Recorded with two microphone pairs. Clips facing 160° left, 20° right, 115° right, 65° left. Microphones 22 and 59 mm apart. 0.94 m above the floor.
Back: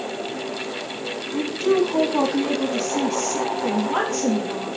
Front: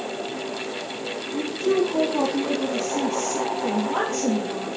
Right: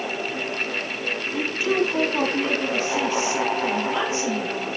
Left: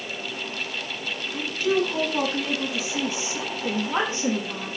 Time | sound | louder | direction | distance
1.3 | a woman speaking | back 2 dB, left 1 dB | 175° right | 1.4 m